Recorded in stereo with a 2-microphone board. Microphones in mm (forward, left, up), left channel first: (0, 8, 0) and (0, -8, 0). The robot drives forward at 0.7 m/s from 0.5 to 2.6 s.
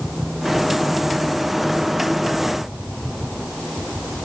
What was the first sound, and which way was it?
Only background noise.